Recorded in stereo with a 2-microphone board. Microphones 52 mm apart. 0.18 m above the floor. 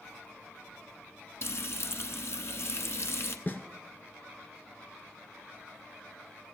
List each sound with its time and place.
1.4 s frying: 60° left (ahead or behind), 0.8 m
3.5 s a snare drum: 40° left (ahead or behind), 0.8 m